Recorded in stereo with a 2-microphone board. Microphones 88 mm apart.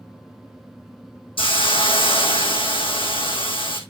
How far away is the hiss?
About 1.6 m.